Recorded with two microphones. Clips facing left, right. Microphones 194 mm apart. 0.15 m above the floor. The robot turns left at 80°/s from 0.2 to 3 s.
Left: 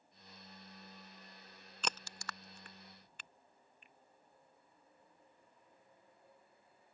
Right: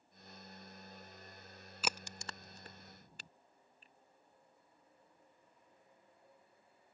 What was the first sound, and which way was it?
A crack, 5° right (ahead or behind).